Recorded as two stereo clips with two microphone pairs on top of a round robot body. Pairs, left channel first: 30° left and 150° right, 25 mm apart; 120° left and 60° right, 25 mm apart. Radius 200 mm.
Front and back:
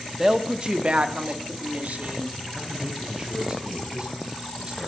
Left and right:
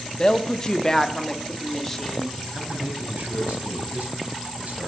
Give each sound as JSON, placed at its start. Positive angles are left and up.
{"t": 0.2, "sound": "a woman speaking", "azimuth_deg": 155, "distance_m": 1.0}
{"t": 2.5, "sound": "a man speaking", "azimuth_deg": -90, "distance_m": 3.0}